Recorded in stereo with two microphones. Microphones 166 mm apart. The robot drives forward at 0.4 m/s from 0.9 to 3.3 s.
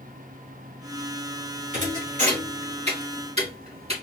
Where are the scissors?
No scissors in this recording.